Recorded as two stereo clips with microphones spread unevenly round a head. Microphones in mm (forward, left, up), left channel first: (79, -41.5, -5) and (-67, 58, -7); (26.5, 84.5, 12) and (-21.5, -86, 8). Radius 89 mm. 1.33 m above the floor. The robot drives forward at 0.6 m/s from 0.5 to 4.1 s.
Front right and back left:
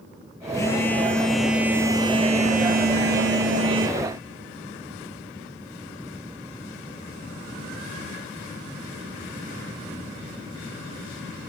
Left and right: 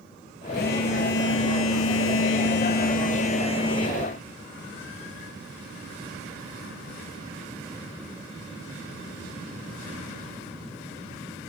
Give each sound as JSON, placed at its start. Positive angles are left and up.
{"t": 0.5, "sound": "a phone buzzing", "azimuth_deg": 40, "distance_m": 1.4}